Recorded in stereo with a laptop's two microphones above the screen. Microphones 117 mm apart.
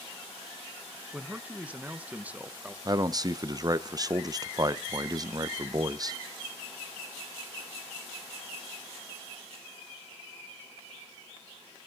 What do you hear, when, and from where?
1.1 s a man speaking: 10° right (ahead or behind), 0.7 m
2.9 s a man speaking: 35° right (ahead or behind), 0.6 m